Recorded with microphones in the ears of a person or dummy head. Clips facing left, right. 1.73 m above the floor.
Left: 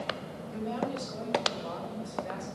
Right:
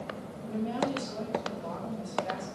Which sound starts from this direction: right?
A woman speaking, at 0.4 s.